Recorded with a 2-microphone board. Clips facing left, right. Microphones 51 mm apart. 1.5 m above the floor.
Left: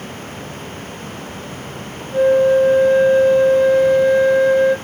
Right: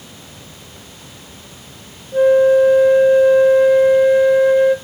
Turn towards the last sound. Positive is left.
turn(degrees=-15)  # may be behind; listen again after turning